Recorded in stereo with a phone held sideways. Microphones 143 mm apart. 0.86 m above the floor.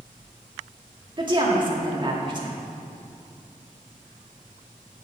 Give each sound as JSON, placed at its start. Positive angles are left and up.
{"t": 1.2, "sound": "a woman speaking", "side_deg": -35, "distance_m": 2.0}